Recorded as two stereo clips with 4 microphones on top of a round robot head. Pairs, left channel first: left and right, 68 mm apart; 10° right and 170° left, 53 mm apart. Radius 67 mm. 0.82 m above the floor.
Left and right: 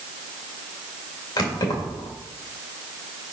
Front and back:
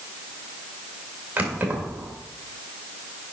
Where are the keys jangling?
110° left, 1.8 m.